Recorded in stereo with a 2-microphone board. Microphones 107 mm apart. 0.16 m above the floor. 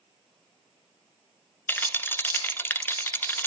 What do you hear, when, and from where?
1.7 s a rattle: 20° left (ahead or behind), 0.9 m